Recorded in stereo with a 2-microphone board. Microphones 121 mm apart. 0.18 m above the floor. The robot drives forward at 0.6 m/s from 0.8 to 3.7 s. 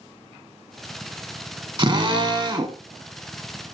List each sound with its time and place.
1.8 s a drill: 40° right (ahead or behind), 0.6 m; by 2.8 s 30° right (ahead or behind), 0.7 m